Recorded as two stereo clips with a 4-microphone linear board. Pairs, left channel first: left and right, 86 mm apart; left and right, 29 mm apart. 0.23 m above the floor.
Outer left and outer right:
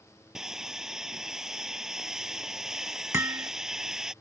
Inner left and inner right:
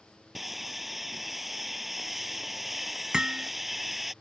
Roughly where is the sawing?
Centre.